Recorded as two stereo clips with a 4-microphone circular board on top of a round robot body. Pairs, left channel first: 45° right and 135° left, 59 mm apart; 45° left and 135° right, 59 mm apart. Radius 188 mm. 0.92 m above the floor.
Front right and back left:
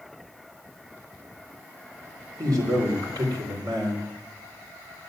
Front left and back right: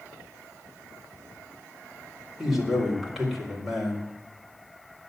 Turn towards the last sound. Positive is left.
turn(degrees=140)